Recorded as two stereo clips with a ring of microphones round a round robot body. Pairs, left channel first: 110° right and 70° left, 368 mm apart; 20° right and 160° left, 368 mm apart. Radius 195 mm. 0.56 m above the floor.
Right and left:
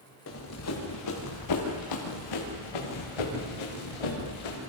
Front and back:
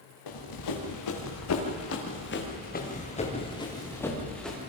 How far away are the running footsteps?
About 5.5 m.